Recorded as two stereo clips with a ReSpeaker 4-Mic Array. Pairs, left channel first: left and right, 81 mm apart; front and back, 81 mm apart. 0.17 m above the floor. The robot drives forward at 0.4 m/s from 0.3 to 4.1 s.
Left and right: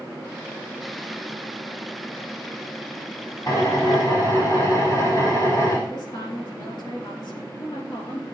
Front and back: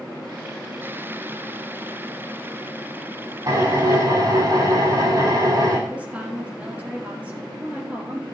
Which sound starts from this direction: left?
A woman speaking, at 5.9 s.